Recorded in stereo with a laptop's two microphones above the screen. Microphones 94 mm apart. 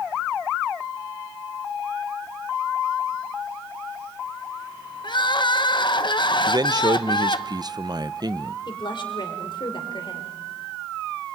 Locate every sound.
5.0 s crying: 55° left (ahead or behind), 0.9 m
6.5 s a man speaking: 50° right (ahead or behind), 0.6 m
8.7 s a woman speaking: 60° left (ahead or behind), 4 m